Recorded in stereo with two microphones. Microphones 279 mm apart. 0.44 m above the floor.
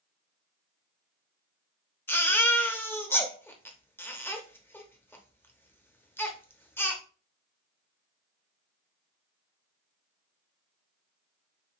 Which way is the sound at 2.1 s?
5° left (ahead or behind).